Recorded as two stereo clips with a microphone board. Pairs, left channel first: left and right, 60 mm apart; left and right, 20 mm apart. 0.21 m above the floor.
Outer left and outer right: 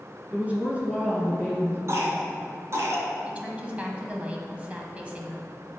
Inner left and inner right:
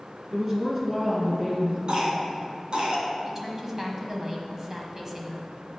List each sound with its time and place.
0.3 s a woman speaking: 25° right (ahead or behind), 2 m
1.9 s a cough: 50° right (ahead or behind), 2 m
3.2 s a woman speaking: 20° right (ahead or behind), 1.4 m